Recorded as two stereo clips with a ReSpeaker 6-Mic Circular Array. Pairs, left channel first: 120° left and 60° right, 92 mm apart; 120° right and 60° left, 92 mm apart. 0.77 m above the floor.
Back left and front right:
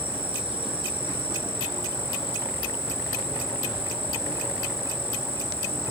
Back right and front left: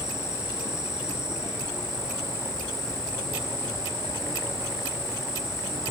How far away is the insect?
About 1.7 m.